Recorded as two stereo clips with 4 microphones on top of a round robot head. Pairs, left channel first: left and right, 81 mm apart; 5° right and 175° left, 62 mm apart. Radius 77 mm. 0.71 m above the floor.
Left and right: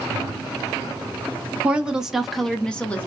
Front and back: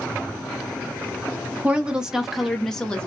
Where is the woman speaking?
145° right, 0.9 m; by 3.1 s 45° left, 0.9 m.